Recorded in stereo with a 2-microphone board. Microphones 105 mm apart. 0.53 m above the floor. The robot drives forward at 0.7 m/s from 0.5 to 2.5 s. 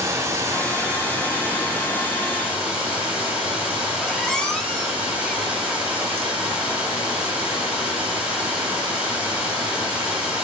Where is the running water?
30° right (ahead or behind), 1.0 m; by 10.4 s 15° right (ahead or behind), 2.5 m.